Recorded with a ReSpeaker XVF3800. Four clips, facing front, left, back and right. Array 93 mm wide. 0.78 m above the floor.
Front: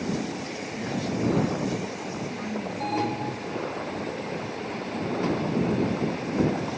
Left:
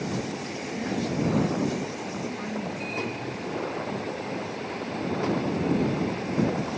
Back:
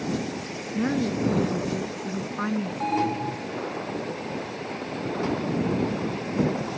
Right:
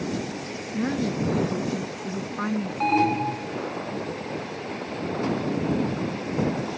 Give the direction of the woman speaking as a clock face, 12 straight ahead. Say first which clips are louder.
Right 3 dB, back 5 dB; 5 o'clock.